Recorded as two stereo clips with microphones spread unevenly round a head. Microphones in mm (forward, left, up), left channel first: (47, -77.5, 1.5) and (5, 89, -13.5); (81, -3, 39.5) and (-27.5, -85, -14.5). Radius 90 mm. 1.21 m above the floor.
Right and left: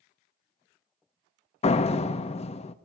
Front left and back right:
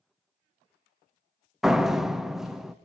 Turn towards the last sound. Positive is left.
turn(degrees=-40)